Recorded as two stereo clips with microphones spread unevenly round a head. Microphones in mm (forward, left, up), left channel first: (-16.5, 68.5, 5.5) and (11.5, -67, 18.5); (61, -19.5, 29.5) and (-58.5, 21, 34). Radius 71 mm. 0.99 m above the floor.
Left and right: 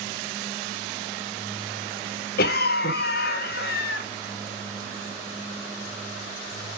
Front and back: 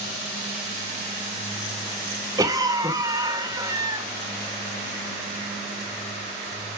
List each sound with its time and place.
2.4 s a cough: 100° left, 1.7 m